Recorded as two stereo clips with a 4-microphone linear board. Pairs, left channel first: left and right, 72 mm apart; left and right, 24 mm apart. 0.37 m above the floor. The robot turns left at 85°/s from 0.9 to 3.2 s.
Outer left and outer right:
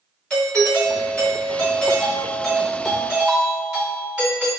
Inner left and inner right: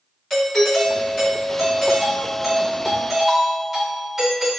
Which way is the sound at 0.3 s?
10° left (ahead or behind).